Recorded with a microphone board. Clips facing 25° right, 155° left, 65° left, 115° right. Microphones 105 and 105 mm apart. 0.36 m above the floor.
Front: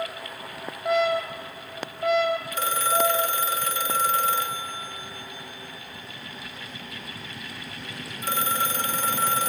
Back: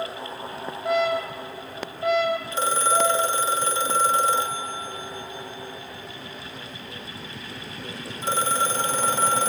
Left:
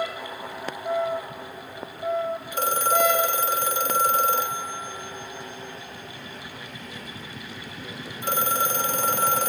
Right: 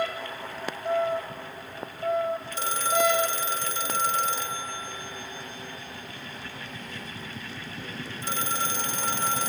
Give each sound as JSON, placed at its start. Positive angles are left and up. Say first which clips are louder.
{"t": 2.5, "sound": "a phone ringing", "louder": "back 2 dB, left 6 dB", "azimuth_deg": 100, "distance_m": 0.7}